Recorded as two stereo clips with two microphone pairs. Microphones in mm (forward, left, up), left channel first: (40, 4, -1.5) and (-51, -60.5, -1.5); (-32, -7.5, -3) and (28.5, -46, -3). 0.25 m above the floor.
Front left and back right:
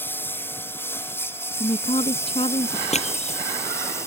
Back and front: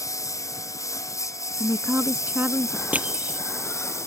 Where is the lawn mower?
105° left; by 4.1 s 100° left.